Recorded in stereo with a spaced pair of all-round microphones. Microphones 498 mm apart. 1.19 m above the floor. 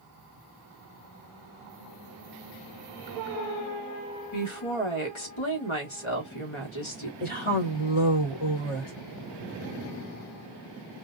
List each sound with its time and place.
4.3 s a woman speaking: 70° left (ahead or behind), 1.3 m
7.2 s a woman speaking: 80° left, 1.4 m